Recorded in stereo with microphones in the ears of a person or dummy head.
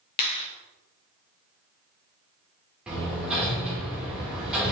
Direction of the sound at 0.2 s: 20° left (ahead or behind).